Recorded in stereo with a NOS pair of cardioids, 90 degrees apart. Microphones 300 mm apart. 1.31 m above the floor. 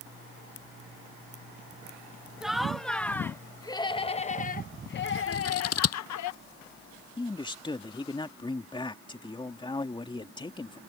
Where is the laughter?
Straight ahead; by 6.3 s 70° left.